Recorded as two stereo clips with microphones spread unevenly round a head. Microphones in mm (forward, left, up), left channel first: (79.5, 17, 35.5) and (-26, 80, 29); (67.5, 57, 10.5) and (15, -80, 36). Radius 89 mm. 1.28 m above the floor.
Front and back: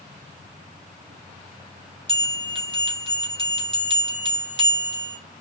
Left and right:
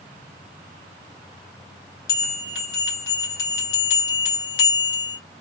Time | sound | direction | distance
2.1 | a bell | 100° left | 2.5 m